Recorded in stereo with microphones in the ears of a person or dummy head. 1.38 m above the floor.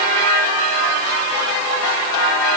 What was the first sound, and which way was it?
Only background noise.